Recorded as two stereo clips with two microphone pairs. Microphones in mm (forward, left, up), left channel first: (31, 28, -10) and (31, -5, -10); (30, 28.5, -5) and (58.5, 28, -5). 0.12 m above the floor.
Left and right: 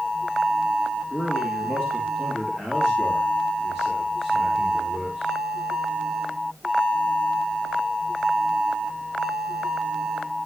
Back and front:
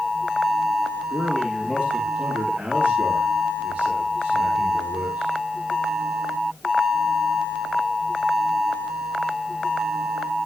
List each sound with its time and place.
1.1 s a man speaking: 40° left, 8.5 m; by 5.3 s 10° right, 8 m